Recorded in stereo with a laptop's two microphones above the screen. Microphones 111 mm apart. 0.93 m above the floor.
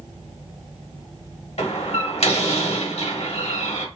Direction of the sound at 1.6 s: 65° left (ahead or behind).